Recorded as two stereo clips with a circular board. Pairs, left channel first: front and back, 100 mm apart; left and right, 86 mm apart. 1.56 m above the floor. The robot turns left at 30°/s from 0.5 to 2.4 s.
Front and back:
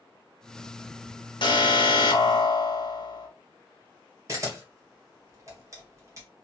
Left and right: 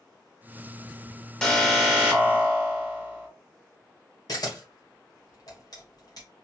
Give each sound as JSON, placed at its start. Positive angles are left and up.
{"t": 1.4, "sound": "an alarm", "azimuth_deg": 15, "distance_m": 1.0}
{"t": 4.3, "sound": "a camera shutter", "azimuth_deg": 125, "distance_m": 1.4}